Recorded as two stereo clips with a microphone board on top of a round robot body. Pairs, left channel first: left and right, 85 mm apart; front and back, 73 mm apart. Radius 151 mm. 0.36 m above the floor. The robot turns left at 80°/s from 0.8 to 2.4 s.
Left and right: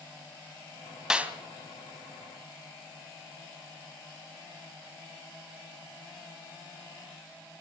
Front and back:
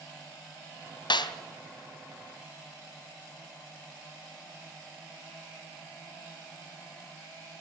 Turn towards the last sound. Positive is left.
turn(degrees=-110)